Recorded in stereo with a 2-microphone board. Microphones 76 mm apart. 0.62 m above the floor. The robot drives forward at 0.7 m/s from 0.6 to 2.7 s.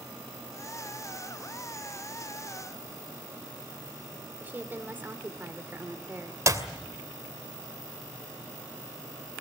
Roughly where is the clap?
Right.